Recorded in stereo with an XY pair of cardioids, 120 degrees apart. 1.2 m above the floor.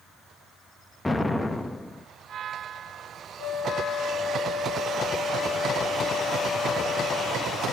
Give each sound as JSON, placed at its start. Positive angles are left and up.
{"t": 1.1, "sound": "an explosion", "azimuth_deg": 10, "distance_m": 0.9}
{"t": 3.4, "sound": "a flute", "azimuth_deg": -25, "distance_m": 4.5}